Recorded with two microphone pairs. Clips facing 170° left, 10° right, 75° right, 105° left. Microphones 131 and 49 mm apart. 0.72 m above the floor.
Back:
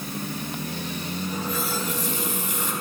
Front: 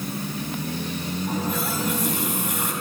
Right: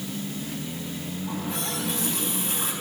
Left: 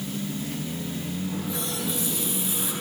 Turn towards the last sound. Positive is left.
turn(degrees=-35)